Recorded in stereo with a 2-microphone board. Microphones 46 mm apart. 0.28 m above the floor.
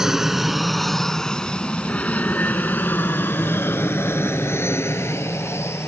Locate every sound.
0.0 s an aircraft: 10° right (ahead or behind); by 5.9 s 75° left (ahead or behind)